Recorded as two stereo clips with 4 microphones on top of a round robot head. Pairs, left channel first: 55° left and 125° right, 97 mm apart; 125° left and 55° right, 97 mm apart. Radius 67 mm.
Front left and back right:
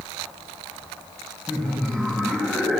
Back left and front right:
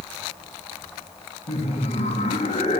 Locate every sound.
1.5 s laughter: 155° left, 1.9 m